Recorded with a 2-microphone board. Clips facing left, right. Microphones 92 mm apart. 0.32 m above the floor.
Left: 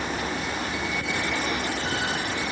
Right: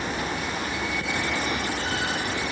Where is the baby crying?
No baby crying in this recording.